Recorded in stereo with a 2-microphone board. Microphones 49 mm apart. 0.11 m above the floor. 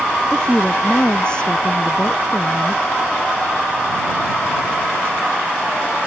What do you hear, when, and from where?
0.3 s a woman speaking: 15° left (ahead or behind); by 2.8 s 25° left (ahead or behind)